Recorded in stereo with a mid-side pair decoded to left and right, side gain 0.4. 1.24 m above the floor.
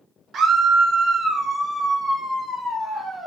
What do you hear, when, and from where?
0.3 s a scream: 60° right, 0.8 m; by 3.3 s 10° right, 2 m